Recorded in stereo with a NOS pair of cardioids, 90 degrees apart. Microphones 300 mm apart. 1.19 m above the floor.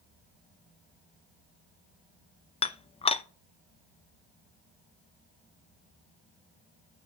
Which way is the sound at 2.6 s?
20° left.